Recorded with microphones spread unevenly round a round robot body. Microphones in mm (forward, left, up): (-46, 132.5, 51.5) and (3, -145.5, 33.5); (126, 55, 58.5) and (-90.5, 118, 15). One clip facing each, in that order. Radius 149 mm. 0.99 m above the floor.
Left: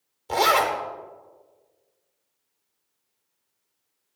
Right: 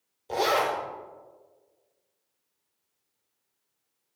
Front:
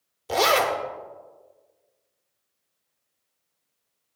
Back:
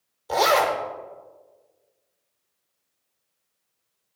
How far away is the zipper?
About 1.0 m.